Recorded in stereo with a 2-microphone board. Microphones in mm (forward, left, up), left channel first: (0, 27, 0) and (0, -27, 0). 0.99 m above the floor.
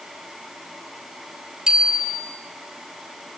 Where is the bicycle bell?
10° right (ahead or behind), 3 m.